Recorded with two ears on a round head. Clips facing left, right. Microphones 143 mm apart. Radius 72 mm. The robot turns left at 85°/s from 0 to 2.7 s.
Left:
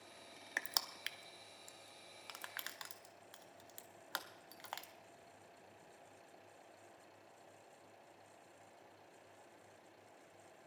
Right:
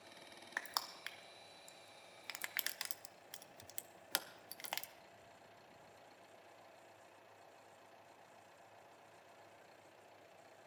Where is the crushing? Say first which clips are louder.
Right 1 dB; 25° left (ahead or behind), 0.6 m; by 4.9 s 25° right (ahead or behind), 0.6 m.